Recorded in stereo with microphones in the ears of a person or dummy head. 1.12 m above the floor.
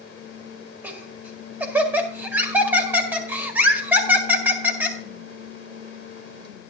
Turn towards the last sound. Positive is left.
turn(degrees=-5)  # may be behind; listen again after turning